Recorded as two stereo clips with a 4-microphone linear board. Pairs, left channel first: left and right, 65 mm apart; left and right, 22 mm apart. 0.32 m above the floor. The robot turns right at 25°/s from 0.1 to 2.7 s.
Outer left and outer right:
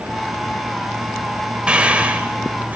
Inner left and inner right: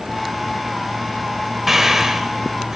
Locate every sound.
1.7 s breathing: 15° right (ahead or behind), 0.7 m; by 2.8 s 25° right (ahead or behind), 0.7 m